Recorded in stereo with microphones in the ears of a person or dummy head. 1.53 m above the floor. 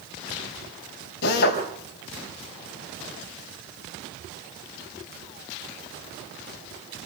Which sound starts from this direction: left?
A drill, at 1.2 s.